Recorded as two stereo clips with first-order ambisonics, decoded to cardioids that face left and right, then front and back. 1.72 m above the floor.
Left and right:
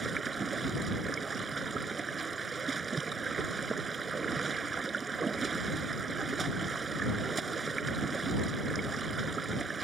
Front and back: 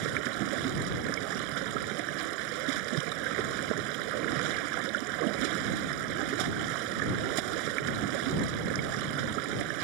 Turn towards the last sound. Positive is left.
turn(degrees=-165)